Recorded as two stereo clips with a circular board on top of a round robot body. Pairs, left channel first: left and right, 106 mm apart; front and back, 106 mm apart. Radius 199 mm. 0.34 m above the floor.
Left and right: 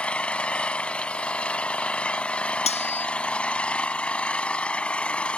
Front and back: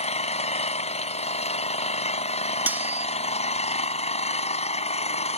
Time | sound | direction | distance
0.0 | an engine running | 10° left | ?
2.7 | cutlery clinking | 105° left | ?